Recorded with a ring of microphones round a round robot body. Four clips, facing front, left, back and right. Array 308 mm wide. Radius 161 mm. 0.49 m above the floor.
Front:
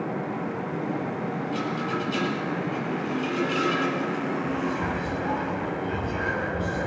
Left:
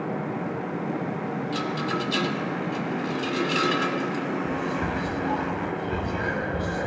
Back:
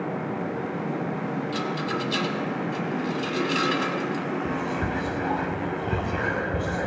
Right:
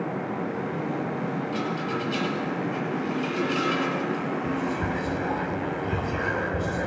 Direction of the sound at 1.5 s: 135° left.